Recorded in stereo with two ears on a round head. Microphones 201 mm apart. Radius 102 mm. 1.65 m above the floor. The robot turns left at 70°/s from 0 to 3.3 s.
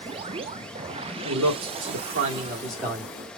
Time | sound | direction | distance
1.2 | a man speaking | 65° right | 1.0 m